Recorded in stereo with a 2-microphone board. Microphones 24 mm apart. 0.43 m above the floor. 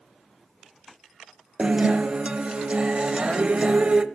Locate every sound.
1.6 s a guitar: 50° right (ahead or behind), 0.5 m